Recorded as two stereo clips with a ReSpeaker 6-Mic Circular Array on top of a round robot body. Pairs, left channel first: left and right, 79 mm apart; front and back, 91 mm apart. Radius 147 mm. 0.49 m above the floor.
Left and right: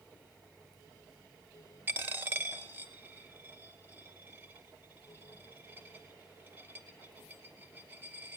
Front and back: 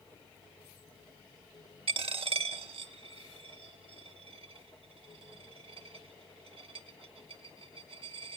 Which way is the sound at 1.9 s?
155° right.